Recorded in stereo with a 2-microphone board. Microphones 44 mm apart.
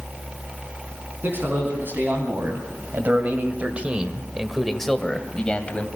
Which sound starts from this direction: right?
A man speaking, at 1.2 s.